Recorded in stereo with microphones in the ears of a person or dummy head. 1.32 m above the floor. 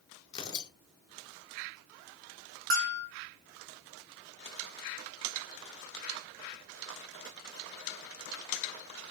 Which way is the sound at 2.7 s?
55° right (ahead or behind).